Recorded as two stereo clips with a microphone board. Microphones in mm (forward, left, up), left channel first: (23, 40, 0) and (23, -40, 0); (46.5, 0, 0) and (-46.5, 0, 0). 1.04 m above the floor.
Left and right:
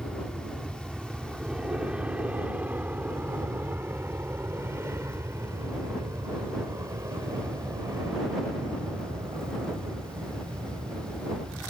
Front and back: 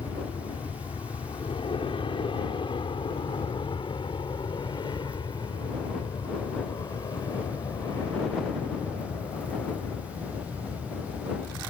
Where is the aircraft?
Straight ahead; by 11.7 s 50° right.